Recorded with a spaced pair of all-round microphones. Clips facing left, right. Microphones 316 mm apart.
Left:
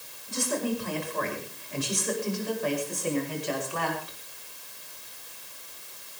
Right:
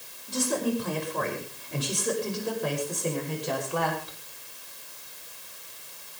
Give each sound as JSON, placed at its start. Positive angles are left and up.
{"t": 0.3, "sound": "a woman speaking", "side_deg": -45, "distance_m": 9.0}